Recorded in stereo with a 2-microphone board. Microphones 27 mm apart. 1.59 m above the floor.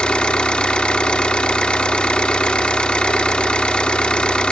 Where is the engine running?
40° left (ahead or behind), 1.5 m.